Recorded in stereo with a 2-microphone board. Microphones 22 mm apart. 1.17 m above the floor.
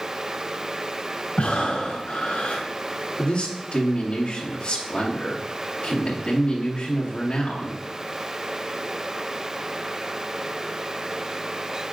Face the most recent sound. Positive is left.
turn(degrees=45)  # may be behind; listen again after turning